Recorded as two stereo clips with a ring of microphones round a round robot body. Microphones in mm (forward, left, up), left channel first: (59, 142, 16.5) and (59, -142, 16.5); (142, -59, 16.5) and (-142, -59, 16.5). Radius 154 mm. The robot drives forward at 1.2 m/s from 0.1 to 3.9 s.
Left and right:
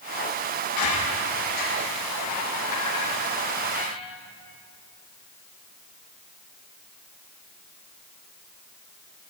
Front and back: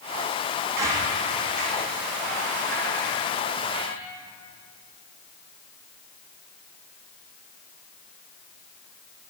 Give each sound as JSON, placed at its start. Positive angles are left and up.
{"t": 0.8, "sound": "a squeak", "azimuth_deg": 100, "distance_m": 4.0}